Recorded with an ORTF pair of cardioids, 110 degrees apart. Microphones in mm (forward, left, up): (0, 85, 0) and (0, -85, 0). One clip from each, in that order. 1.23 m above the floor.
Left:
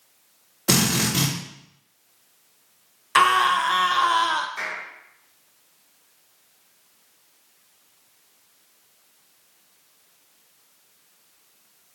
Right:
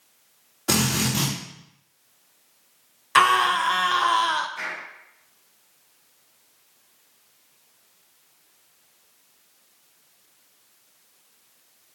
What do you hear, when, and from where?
0.7 s a drill: 15° left, 3 m
3.1 s a scream: 5° right, 0.9 m
4.6 s a clap: 25° left, 3.5 m